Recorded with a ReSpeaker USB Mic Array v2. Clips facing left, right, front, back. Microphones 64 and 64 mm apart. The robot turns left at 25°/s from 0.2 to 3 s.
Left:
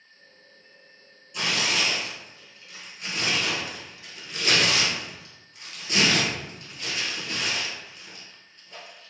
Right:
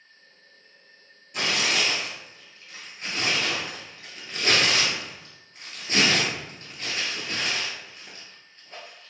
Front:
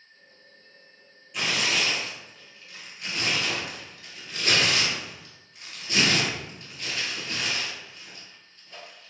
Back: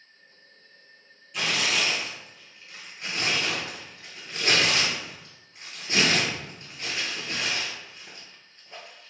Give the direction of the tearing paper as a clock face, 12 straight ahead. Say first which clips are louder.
Right 1 dB, even; 3 o'clock.